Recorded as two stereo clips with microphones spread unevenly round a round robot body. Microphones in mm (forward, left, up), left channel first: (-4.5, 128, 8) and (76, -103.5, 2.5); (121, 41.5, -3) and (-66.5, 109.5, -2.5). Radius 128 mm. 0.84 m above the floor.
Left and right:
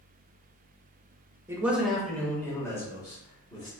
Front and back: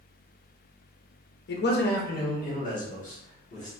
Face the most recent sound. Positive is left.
turn(degrees=35)